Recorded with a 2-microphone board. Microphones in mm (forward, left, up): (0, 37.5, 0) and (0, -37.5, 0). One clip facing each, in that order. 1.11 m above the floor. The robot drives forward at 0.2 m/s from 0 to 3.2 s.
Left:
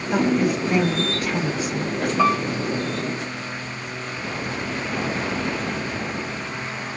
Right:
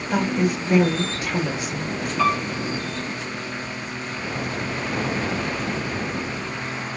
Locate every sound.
0.1 s a woman speaking: 5° right (ahead or behind), 1.5 m
2.2 s a piano: 25° left (ahead or behind), 0.9 m; by 2.7 s 20° left (ahead or behind), 1.0 m